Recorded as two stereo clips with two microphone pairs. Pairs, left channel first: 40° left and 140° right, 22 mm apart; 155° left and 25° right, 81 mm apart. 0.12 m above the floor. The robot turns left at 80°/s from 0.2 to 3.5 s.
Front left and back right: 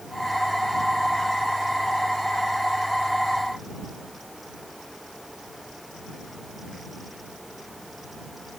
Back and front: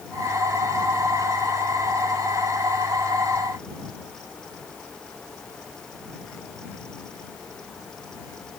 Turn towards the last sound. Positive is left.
No sound to turn to.